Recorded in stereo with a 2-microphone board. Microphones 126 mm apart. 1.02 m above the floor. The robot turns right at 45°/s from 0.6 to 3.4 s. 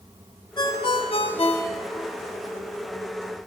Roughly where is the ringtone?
Ahead left.